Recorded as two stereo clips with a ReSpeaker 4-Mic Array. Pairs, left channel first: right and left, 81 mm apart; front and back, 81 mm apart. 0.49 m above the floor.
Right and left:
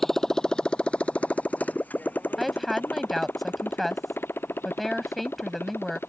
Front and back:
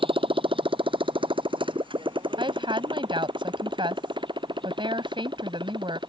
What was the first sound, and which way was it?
A motorcycle, straight behind.